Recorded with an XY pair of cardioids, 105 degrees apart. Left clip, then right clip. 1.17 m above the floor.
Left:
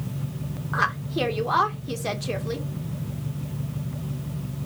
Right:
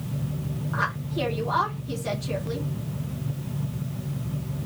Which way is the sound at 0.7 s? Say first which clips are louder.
Left 4 dB; 45° left.